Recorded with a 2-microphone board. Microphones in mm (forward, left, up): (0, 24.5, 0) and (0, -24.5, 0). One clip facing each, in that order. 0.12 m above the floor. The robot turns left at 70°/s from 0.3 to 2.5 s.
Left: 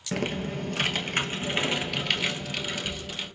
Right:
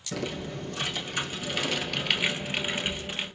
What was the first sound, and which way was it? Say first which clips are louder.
Typing on a keyboard: left 4 dB; 120° left.